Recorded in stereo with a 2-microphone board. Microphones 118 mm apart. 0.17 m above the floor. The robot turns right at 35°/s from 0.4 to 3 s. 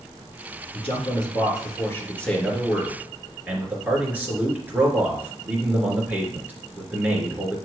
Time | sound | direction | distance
0.7 | a man speaking | 115° left | 2.5 m